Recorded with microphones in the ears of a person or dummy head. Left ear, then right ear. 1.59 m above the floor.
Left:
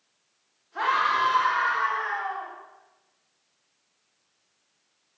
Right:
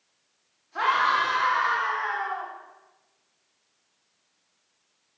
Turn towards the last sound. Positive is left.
turn(degrees=-20)  # may be behind; listen again after turning